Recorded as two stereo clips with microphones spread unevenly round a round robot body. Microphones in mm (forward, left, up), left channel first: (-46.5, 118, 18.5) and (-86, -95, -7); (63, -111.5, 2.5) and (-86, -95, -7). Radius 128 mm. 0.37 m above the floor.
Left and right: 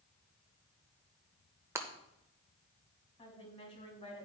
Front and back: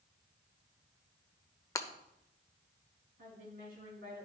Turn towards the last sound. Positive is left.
turn(degrees=145)